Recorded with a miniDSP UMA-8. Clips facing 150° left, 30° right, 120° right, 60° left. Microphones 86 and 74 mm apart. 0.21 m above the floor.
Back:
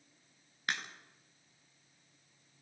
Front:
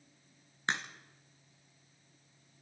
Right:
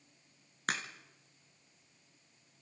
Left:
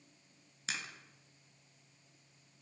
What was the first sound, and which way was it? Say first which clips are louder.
A crack: front 3 dB, right 6 dB; 90° right.